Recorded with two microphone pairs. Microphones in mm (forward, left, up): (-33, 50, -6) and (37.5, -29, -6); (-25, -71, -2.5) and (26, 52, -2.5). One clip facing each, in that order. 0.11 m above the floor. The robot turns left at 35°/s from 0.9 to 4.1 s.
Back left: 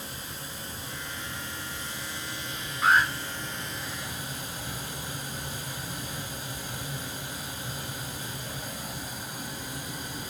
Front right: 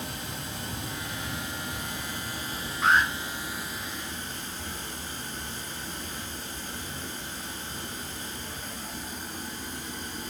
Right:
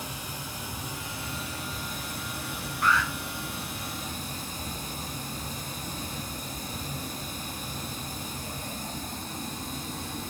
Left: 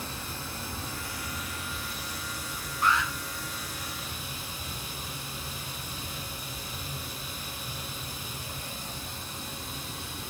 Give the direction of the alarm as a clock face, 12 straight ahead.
10 o'clock.